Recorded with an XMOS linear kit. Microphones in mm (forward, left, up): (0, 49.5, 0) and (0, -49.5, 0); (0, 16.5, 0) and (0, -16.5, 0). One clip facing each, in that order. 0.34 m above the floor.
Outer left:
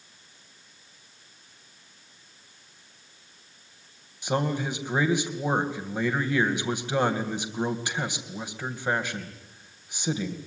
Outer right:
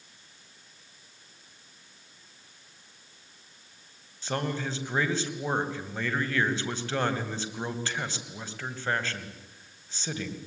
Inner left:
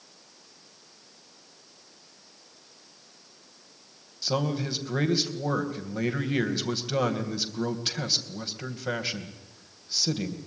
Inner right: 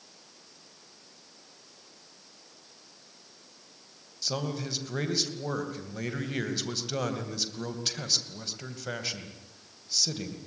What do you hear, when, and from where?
4.2 s a man speaking: 15° left (ahead or behind), 2.5 m